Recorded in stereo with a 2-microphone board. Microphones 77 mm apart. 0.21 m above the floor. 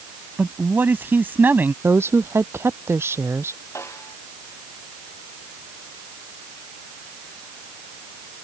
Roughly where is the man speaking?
Right.